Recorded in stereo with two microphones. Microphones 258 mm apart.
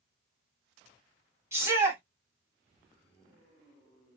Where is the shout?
10° right (ahead or behind), 1.5 m.